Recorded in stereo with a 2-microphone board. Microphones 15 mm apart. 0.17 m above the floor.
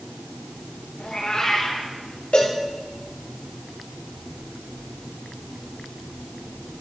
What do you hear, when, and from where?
1.0 s a cat meowing: 40° left (ahead or behind), 6 m
2.3 s a cowbell: 70° left (ahead or behind), 3.5 m